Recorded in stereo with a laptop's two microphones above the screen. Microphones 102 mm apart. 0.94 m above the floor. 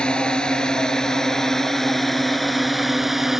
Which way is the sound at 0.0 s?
10° left (ahead or behind).